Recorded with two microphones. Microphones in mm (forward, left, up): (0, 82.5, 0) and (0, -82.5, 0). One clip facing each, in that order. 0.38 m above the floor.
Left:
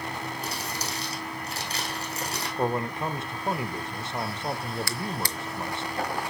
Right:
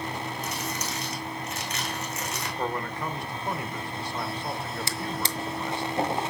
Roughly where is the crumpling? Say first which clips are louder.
Right 1 dB; left.